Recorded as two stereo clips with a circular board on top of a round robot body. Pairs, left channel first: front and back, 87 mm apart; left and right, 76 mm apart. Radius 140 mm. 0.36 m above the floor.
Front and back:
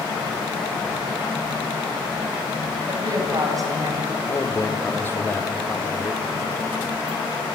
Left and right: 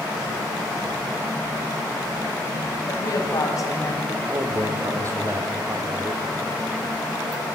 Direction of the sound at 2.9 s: 130° left.